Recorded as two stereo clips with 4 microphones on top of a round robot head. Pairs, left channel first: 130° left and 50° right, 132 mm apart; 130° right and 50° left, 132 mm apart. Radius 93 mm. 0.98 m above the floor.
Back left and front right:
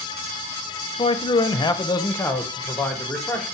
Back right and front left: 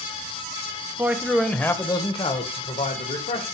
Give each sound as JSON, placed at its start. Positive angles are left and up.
{"t": 1.0, "sound": "a man speaking", "azimuth_deg": 115, "distance_m": 0.8}